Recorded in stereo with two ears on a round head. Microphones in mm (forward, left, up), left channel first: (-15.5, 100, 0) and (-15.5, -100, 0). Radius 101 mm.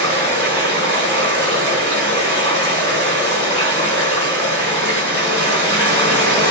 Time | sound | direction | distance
0.0 | running water | 20° left (ahead or behind) | 1.8 m